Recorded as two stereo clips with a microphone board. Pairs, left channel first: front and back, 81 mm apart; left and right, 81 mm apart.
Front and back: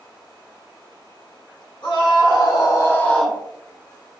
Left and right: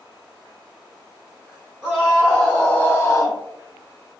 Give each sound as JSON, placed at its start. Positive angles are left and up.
{"t": 1.8, "sound": "a scream", "azimuth_deg": -5, "distance_m": 1.8}